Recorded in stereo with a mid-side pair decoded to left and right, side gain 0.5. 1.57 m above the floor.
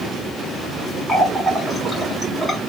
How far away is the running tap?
About 1.7 m.